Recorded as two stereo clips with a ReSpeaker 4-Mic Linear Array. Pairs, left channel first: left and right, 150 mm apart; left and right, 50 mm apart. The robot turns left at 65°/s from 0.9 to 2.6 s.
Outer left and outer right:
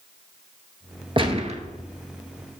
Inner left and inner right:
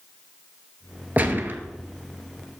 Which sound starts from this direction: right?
A gunshot, at 1.2 s.